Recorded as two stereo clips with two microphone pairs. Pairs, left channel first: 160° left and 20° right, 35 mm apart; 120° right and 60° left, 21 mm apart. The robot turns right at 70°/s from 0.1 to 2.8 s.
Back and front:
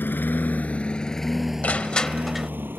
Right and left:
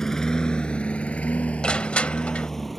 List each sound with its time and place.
0.0 s a lawn mower: straight behind; by 2.8 s 25° right
1.6 s crushing: 160° right; by 2.5 s 100° right